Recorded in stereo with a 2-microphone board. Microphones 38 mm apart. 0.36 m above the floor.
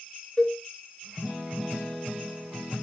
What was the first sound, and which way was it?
A cowbell, 10° left (ahead or behind).